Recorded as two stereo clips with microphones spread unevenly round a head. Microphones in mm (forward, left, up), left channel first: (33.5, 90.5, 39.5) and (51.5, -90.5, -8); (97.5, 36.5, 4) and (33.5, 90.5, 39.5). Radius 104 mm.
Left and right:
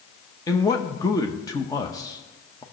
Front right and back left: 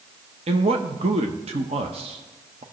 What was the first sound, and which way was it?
A man speaking, 175° left.